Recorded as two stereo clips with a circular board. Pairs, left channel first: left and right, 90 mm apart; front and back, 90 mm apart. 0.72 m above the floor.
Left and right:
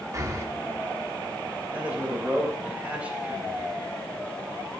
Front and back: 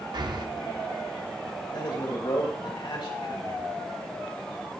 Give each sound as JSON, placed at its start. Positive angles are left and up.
{"t": 0.1, "sound": "breathing", "azimuth_deg": -145, "distance_m": 0.8}
{"t": 1.7, "sound": "a man speaking", "azimuth_deg": -15, "distance_m": 3.0}